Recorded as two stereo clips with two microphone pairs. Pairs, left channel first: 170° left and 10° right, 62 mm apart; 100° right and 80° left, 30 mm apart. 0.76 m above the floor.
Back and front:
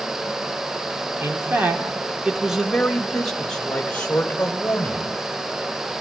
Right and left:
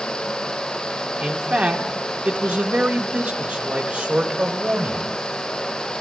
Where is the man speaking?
35° left, 2 m; by 5.1 s 110° left, 3.5 m.